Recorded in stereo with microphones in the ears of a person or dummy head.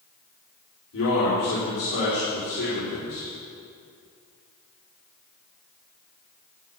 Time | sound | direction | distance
0.9 | a man speaking | 85° left | 4.5 m